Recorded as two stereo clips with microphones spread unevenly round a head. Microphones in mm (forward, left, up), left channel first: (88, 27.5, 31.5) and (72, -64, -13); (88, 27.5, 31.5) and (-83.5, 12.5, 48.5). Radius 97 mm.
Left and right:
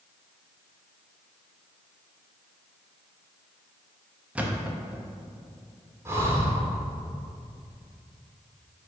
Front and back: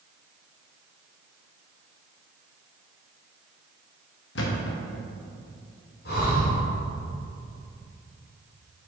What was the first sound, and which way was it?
A thud, 5° right.